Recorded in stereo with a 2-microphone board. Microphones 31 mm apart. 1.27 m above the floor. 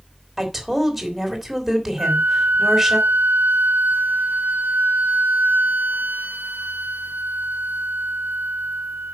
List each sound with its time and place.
0.4 s a woman speaking: 5° right (ahead or behind), 3 m
2.0 s a flute: 85° right, 0.7 m